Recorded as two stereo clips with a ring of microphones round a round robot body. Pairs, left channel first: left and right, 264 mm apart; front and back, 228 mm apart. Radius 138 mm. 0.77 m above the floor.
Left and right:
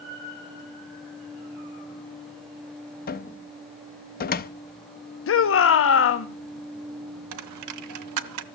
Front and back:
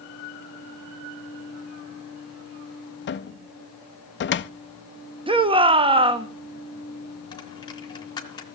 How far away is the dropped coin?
About 0.7 m.